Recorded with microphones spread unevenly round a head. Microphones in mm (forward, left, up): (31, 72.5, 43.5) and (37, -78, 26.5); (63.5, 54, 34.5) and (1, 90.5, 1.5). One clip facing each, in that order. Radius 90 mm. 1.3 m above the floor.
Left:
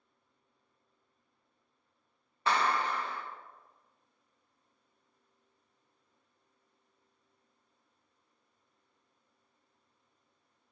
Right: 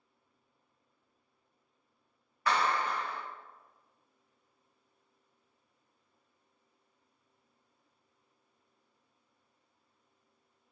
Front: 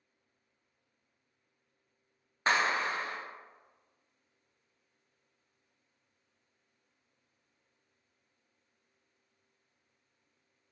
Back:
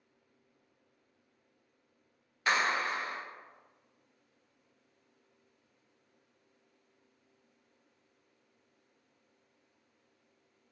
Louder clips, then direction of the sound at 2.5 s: Even, front 1 dB; 25° left.